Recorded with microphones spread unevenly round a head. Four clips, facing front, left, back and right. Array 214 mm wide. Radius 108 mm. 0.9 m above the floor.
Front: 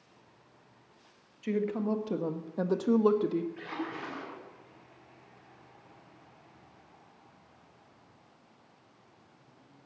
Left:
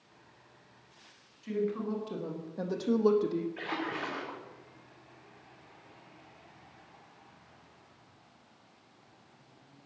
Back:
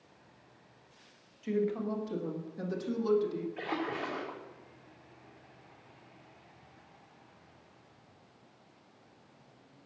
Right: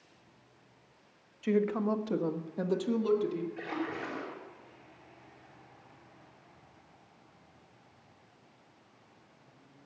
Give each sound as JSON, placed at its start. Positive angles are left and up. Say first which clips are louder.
{"t": 1.4, "sound": "a woman speaking", "louder": "right 4 dB, front 1 dB", "azimuth_deg": -45, "distance_m": 1.6}
{"t": 3.6, "sound": "a splash", "louder": "even, back 3 dB", "azimuth_deg": 165, "distance_m": 4.5}